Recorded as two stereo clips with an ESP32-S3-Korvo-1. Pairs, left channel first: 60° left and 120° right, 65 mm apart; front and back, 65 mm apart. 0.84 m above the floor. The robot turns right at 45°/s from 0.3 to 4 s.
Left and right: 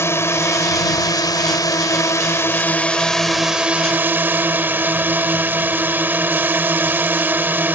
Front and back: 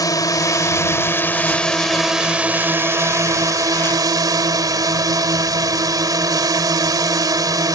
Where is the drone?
15° left; by 7.8 s straight behind.